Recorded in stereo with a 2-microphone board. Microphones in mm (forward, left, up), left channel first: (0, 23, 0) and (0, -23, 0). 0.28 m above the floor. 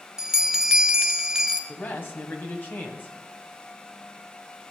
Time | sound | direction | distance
0.2 | a bell | 10° right (ahead or behind) | 0.8 m
1.7 | a man speaking | 45° left (ahead or behind) | 2 m